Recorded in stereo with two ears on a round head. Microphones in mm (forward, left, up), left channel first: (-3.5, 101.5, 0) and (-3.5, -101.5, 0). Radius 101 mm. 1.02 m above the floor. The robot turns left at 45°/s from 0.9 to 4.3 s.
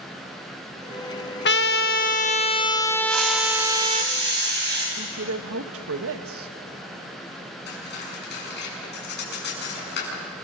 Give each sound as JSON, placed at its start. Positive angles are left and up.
{"t": 1.4, "sound": "a trumpet", "azimuth_deg": 80, "distance_m": 0.8}
{"t": 3.1, "sound": "a hiss", "azimuth_deg": -75, "distance_m": 6.5}
{"t": 5.0, "sound": "a woman speaking", "side_deg": -65, "distance_m": 1.4}
{"t": 7.7, "sound": "cutlery clinking", "side_deg": 50, "distance_m": 7.0}